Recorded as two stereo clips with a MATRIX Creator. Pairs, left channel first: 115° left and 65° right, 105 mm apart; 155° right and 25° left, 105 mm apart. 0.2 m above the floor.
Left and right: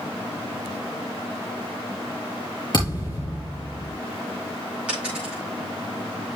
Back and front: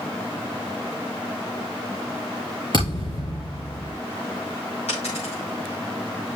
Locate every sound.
2.7 s a thud: 160° left, 5.5 m
4.9 s a dropped coin: 145° right, 7.5 m